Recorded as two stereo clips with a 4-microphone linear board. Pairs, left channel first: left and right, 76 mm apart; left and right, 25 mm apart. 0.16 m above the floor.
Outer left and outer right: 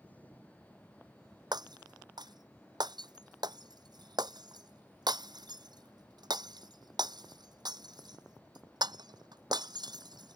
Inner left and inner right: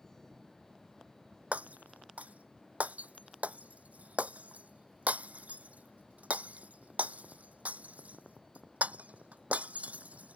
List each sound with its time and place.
1.5 s breaking glass: 70° right (ahead or behind)